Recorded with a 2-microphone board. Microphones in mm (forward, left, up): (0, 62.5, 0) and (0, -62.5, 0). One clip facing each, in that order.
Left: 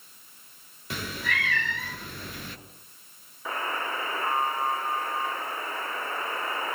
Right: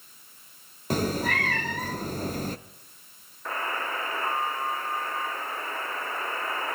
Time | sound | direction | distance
0.9 | a cat meowing | 45° right (ahead or behind) | 0.7 m
3.5 | a buzzer | 5° left (ahead or behind) | 4 m